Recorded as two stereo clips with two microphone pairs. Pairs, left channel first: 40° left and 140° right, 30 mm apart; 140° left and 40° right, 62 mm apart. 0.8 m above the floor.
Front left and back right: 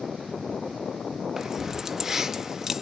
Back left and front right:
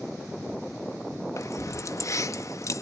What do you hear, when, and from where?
1.4 s keys jangling: 150° left, 0.7 m